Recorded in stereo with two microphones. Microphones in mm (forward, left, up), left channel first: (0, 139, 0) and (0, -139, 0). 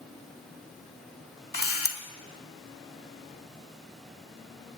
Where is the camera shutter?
55° left (ahead or behind), 1.0 m.